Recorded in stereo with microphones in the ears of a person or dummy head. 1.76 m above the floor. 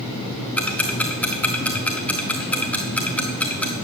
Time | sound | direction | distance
0.6 | ticking | 10° left (ahead or behind) | 1.3 m